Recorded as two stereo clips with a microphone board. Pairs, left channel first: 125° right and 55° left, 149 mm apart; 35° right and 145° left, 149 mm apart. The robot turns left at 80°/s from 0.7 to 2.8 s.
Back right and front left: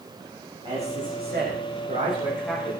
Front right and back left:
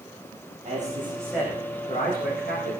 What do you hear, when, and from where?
0.7 s a man speaking: 115° left, 8.5 m; by 2.8 s 55° right, 8.5 m